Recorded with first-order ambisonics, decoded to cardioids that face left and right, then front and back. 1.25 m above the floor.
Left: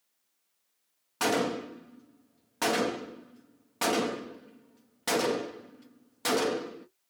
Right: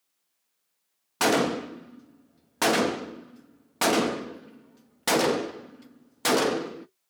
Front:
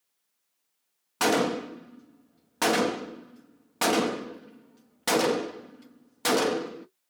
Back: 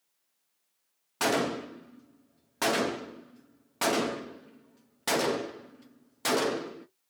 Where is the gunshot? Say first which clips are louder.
Right 5 dB, front 3 dB; 60° right, 0.5 m.